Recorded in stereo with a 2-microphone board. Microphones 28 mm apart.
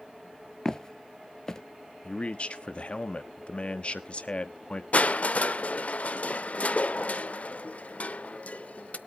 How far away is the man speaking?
About 1.0 m.